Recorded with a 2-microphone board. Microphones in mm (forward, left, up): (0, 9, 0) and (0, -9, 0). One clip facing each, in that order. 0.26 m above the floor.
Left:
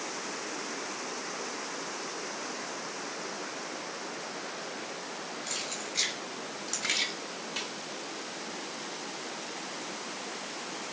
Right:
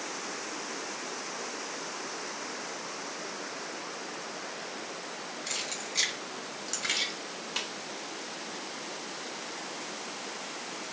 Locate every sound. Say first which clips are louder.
5.5 s keys jangling: right 2 dB; 15° right (ahead or behind), 1.8 m; by 7.1 s 5° left (ahead or behind), 1.0 m
7.6 s a snare drum: right 2 dB; 25° right (ahead or behind), 0.9 m